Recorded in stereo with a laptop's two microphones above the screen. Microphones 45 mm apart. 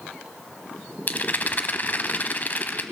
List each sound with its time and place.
1.1 s a rattle: 40° left (ahead or behind), 1.0 m